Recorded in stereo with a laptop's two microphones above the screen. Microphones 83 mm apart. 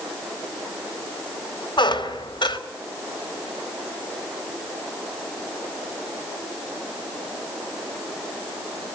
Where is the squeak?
70° left (ahead or behind), 2.5 m.